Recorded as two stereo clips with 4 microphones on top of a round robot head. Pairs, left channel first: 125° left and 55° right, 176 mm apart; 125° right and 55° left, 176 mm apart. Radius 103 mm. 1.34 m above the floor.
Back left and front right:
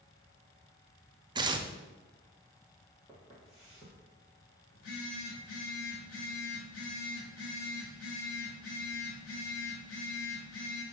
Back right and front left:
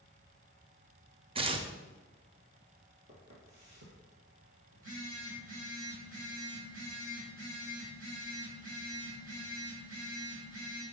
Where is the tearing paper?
5° left, 0.6 m.